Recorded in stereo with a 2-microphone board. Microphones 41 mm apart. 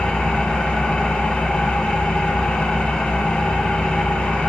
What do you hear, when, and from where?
0.0 s an engine running: 25° left (ahead or behind), 1.1 m